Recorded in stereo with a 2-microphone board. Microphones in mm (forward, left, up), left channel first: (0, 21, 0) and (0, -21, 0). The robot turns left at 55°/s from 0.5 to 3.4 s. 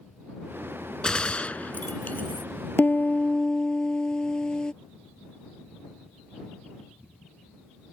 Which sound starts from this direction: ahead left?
A piano, at 2.8 s.